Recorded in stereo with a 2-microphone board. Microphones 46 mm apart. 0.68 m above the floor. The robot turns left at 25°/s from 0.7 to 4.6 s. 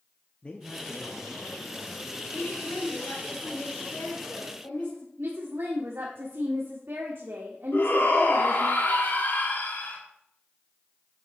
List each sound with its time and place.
0.4 s a man speaking: 45° left, 0.8 m; by 2.2 s 5° left, 0.8 m
2.3 s a woman speaking: 120° left, 2 m; by 5.1 s 65° left, 2 m
5.2 s a woman speaking: 65° right (ahead or behind), 1.4 m
7.7 s a shout: 50° left (ahead or behind), 1.7 m